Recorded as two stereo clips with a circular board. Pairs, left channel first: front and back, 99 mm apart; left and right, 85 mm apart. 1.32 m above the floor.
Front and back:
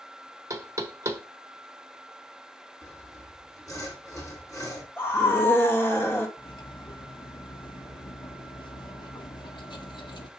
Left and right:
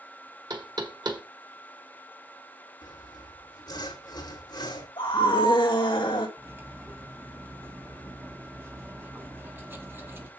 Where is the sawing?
55° left, 2.5 m.